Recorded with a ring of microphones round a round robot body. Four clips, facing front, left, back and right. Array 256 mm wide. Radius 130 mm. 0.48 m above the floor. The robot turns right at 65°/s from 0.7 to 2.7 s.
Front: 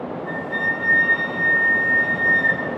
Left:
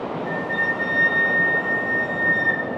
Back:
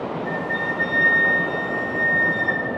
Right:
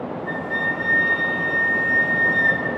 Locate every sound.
0.2 s a flute: 160° left, 1.4 m; by 2.6 s 70° right, 1.4 m